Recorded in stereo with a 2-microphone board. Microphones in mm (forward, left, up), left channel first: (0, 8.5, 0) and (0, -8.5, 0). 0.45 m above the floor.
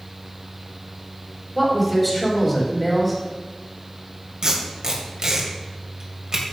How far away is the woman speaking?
About 3 m.